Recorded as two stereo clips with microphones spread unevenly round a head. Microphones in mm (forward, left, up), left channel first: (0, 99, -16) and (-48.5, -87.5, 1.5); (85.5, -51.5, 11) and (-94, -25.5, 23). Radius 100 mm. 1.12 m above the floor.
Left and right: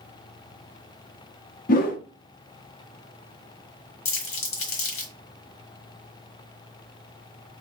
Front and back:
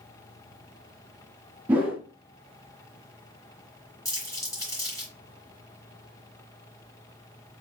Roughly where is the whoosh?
Left.